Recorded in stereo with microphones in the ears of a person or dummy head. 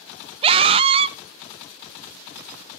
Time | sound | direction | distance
0.4 | a scream | 30° right (ahead or behind) | 0.5 m